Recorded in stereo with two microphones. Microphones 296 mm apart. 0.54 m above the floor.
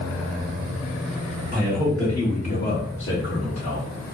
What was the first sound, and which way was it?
A man speaking, 20° right (ahead or behind).